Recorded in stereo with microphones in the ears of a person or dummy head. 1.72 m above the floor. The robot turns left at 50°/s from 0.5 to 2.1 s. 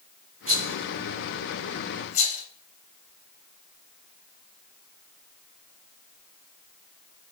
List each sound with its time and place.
0.5 s a rattle: 40° right (ahead or behind), 0.7 m; by 2.4 s 35° left (ahead or behind), 0.7 m